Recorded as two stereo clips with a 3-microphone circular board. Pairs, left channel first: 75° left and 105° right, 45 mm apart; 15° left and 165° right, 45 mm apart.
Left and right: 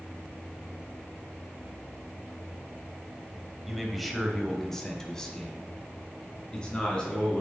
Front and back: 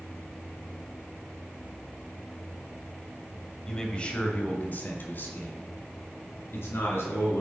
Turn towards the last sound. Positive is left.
turn(degrees=10)